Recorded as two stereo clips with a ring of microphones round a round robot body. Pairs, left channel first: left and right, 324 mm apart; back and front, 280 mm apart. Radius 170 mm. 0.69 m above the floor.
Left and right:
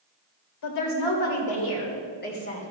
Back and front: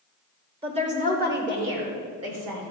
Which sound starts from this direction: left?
A woman speaking, at 0.6 s.